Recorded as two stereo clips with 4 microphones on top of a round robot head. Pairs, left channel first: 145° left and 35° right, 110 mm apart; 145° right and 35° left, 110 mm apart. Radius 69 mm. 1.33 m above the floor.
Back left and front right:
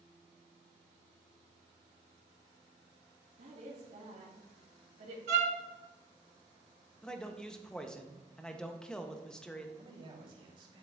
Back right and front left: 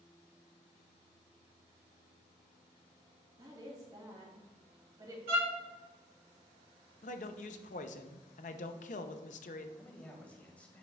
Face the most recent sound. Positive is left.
turn(degrees=-70)